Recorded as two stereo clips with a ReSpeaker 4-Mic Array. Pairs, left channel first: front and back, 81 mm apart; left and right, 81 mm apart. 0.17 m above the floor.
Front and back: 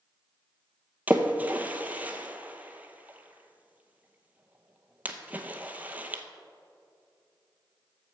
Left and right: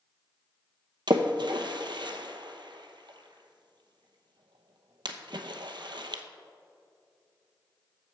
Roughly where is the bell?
No bell in this recording.